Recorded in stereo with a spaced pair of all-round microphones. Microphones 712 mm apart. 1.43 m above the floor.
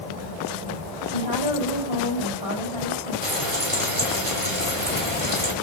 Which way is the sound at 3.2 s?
55° right (ahead or behind).